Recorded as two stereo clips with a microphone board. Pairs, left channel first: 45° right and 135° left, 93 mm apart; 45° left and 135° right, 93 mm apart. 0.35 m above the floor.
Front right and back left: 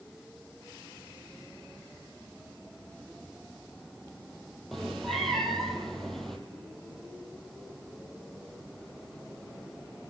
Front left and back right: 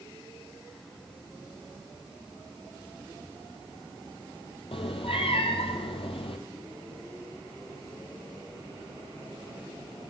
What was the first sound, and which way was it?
A cat meowing, 40° left.